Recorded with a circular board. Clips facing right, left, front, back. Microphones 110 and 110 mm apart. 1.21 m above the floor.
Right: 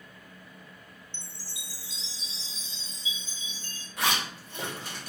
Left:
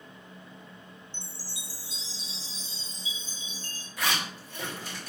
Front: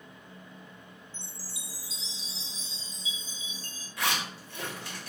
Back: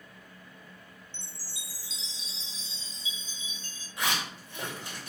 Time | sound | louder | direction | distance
1.1 | a chime | left 2 dB, front 2 dB | 140° right | 0.7 m
4.0 | a zipper | right 1 dB, even | 115° right | 2.5 m